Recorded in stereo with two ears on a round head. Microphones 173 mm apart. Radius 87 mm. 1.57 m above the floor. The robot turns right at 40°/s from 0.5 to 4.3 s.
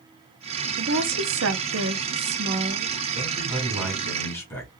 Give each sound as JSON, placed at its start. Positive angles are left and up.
{"t": 0.8, "sound": "a woman speaking", "azimuth_deg": -120, "distance_m": 1.0}
{"t": 3.1, "sound": "a man speaking", "azimuth_deg": -35, "distance_m": 3.0}